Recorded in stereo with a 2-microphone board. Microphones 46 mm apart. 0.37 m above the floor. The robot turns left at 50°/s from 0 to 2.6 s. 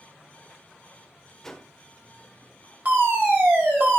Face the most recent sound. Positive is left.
turn(degrees=-35)  # may be behind; listen again after turning